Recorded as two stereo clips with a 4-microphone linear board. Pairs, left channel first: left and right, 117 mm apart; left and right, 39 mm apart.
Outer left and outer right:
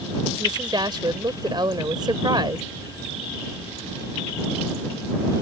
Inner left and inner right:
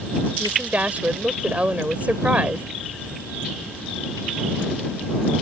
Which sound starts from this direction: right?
A woman speaking, at 0.4 s.